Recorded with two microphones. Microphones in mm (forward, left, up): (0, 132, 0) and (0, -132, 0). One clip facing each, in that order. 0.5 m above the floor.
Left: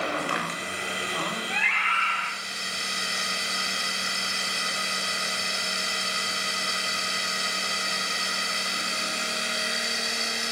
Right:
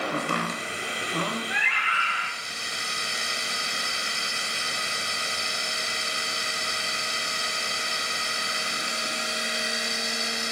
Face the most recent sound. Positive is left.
turn(degrees=-15)  # may be behind; listen again after turning